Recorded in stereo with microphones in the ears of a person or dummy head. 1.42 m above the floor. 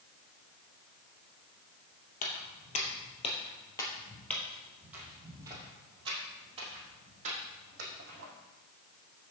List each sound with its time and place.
2.2 s footsteps: 45° left (ahead or behind), 2.5 m; by 8.3 s 45° right (ahead or behind), 4 m